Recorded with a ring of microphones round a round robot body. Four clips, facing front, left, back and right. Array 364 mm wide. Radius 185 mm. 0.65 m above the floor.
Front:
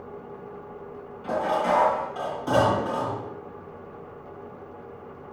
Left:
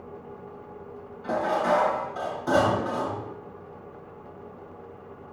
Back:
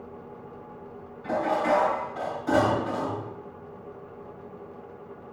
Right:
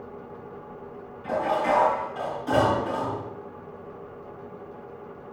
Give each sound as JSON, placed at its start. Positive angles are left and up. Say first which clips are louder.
{"t": 1.2, "sound": "dishes clattering", "louder": "even, even", "azimuth_deg": 40, "distance_m": 6.0}